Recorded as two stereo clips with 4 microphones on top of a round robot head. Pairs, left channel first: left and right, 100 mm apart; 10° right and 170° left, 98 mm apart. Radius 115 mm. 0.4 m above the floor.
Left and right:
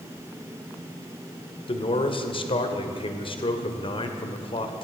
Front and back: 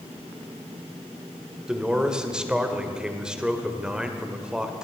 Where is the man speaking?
90° left, 2.0 m.